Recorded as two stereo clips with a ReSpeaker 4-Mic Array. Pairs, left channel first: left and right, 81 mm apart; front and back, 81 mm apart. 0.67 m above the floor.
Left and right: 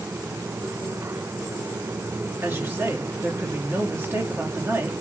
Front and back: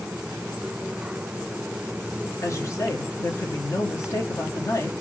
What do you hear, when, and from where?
2.4 s a woman speaking: 40° right, 0.9 m